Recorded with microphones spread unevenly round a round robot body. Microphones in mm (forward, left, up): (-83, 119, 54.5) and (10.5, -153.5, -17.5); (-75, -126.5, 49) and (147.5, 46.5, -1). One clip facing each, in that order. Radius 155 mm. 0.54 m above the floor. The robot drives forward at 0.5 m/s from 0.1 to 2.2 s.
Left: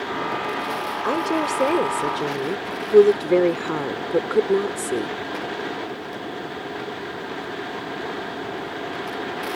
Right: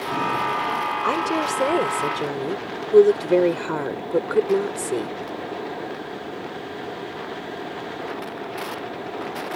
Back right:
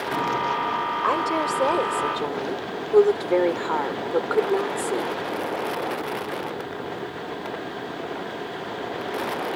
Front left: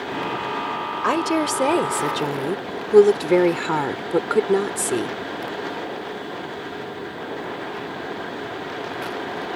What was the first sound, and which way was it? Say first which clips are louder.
A woman speaking: left 2 dB, front left 6 dB; 10° left.